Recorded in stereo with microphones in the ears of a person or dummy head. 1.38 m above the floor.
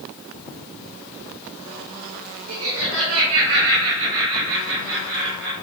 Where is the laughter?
75° right (ahead or behind), 2.5 m.